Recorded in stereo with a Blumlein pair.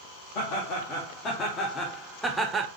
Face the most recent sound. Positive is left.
turn(degrees=-20)